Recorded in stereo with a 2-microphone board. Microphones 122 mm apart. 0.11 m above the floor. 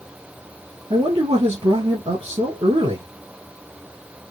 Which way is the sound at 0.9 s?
55° right (ahead or behind).